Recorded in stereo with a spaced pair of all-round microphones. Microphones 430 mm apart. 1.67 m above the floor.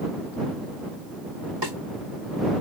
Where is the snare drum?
70° right (ahead or behind).